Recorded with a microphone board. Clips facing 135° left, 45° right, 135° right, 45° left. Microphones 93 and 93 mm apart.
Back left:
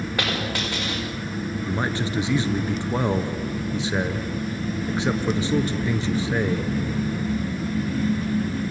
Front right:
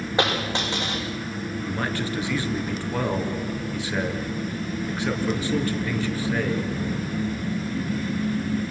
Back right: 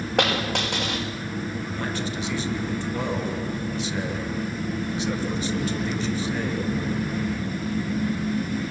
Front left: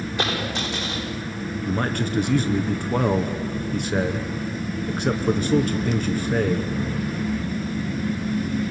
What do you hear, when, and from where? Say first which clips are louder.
0.2 s a dropped coin: front right 4 dB, back right 4 dB; 115° right, 6.5 m
1.6 s a man speaking: back left 1 dB, front left 5 dB; 70° left, 2 m